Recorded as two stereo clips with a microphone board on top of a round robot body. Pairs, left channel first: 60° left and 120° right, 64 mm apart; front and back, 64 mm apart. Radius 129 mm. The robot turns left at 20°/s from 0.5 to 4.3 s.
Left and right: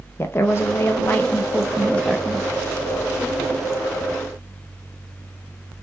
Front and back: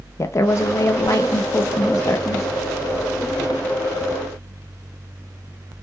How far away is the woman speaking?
About 0.5 m.